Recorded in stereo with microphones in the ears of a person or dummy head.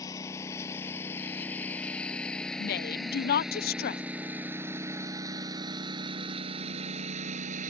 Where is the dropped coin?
No dropped coin in this recording.